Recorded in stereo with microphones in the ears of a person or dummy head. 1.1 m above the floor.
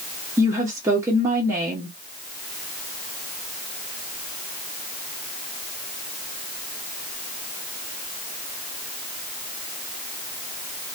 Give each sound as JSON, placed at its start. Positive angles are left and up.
{"t": 0.4, "sound": "a woman speaking", "side_deg": -15, "distance_m": 0.7}